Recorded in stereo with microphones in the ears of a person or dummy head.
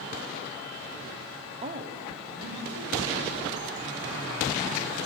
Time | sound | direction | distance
1.6 | a man speaking | 30° right (ahead or behind) | 1.2 m